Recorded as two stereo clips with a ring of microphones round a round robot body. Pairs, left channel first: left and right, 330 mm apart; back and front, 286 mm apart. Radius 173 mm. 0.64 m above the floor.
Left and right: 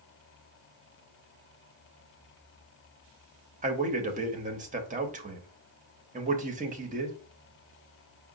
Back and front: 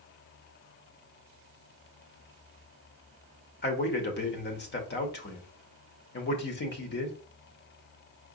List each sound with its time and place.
3.6 s a man speaking: 145° right, 0.9 m